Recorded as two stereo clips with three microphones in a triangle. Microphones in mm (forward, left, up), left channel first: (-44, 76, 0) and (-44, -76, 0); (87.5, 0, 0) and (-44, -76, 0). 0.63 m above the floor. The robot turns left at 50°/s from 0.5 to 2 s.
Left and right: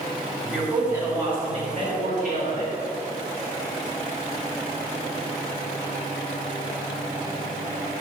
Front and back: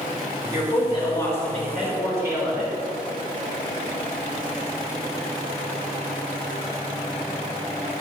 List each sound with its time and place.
0.5 s a woman speaking: 5° right, 3 m; by 2.7 s 75° right, 3 m